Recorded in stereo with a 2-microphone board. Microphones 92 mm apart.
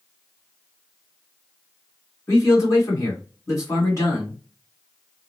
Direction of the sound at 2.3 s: 35° left (ahead or behind).